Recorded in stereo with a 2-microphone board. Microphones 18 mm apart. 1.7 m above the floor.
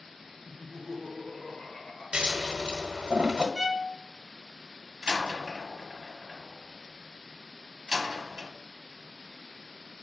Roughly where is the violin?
Left.